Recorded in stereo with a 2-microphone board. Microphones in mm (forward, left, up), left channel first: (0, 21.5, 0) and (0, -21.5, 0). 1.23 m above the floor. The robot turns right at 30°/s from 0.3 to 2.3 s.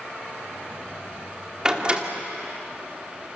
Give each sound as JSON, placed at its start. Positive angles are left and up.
{"t": 1.6, "sound": "a door slam", "side_deg": -15, "distance_m": 2.5}